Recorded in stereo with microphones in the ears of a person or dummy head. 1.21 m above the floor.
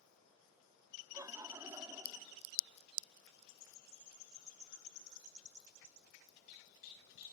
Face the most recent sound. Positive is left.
turn(degrees=-20)  # may be behind; listen again after turning